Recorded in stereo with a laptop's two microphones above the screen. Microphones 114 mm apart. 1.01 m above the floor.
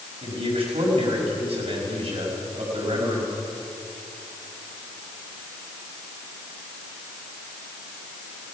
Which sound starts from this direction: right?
A man speaking, at 0.2 s.